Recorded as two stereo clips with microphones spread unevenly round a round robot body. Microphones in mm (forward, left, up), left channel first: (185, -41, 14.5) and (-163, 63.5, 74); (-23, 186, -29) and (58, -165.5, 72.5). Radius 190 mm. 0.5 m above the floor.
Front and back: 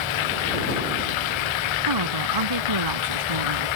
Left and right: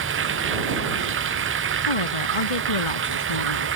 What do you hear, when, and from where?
0.0 s running water: 20° right
1.9 s a woman speaking: 130° left